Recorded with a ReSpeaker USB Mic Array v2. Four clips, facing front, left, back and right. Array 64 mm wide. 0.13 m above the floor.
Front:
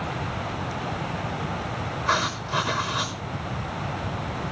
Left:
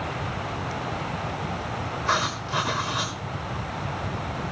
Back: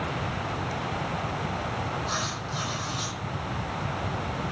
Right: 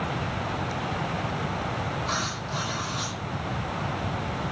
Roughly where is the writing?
Ahead left.